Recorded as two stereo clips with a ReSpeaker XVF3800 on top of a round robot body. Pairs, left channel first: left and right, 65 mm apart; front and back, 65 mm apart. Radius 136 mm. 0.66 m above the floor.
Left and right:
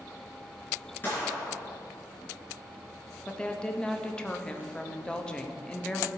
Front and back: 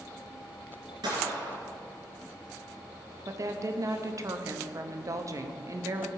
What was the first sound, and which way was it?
A gunshot, 155° left.